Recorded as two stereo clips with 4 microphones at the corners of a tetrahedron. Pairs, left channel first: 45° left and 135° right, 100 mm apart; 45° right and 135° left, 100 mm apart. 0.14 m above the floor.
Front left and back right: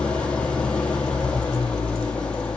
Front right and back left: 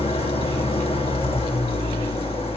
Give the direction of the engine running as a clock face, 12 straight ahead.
1 o'clock.